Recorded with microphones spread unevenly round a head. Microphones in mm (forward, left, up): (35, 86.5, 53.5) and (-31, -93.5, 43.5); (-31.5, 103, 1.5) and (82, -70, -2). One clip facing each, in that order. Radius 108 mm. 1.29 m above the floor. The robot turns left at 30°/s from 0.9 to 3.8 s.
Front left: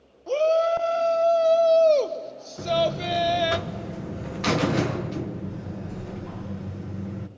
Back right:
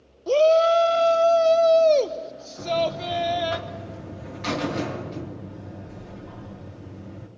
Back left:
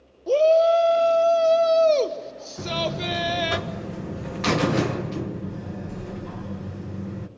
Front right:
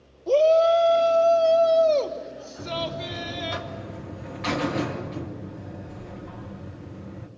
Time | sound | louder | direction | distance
0.3 | a shout | back right 4 dB, back left 1 dB | 150° right | 0.9 m
2.6 | a buzzer | front left 1 dB, back left 4 dB | 130° left | 1.3 m